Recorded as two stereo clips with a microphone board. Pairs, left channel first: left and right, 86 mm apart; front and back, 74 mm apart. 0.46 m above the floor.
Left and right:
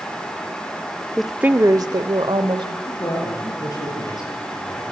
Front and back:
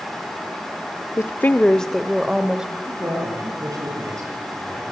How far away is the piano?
No piano in this recording.